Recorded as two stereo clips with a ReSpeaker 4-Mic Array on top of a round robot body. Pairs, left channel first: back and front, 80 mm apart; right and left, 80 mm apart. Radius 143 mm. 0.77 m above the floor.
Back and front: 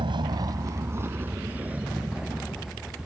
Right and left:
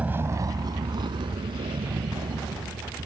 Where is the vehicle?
15° left; by 3.1 s 85° left.